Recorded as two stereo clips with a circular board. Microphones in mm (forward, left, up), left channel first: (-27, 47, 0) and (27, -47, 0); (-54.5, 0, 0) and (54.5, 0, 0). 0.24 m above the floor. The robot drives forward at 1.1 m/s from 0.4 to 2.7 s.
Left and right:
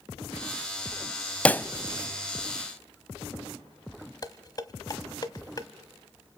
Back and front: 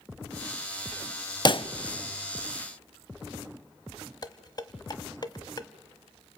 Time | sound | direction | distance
1.4 | a pop | 165° right | 0.5 m
4.2 | dishes clattering | 155° left | 1.0 m